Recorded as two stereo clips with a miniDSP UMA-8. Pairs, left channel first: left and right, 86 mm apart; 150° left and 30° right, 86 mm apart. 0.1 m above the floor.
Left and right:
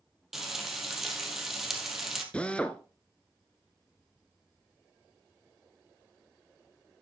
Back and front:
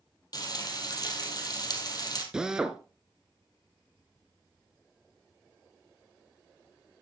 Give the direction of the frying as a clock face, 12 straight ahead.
6 o'clock.